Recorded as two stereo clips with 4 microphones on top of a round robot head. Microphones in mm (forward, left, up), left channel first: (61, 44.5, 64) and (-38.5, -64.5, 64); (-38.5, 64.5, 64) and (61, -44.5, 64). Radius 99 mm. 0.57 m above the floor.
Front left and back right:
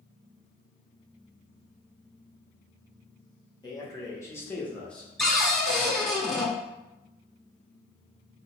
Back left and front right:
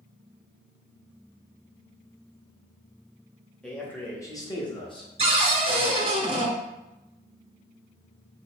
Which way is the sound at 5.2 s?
40° right.